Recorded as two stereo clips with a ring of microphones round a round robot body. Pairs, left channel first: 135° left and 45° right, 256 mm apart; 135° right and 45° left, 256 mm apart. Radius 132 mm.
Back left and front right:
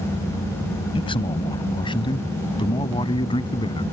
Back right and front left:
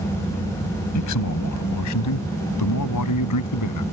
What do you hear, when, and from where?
0.9 s a man speaking: 155° right; by 3.8 s 150° right